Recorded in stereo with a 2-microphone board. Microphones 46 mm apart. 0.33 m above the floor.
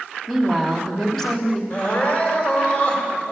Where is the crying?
35° left (ahead or behind), 1.7 m.